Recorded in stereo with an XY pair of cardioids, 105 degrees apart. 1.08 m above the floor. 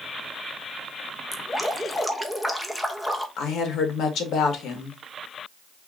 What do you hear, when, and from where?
1.3 s dripping: 10° left, 1.1 m
3.4 s a woman speaking: 70° left, 1.9 m